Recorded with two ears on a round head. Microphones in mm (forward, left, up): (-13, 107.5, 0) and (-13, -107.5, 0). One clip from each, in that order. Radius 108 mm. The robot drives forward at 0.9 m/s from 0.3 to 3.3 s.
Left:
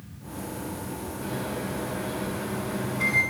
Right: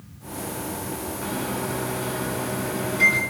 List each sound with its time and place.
1.2 s a microwave: 90° right, 6 m; by 3.2 s 75° right (ahead or behind), 6.5 m